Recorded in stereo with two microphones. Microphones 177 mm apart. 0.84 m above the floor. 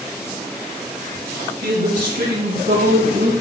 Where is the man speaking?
85° right, 6 m.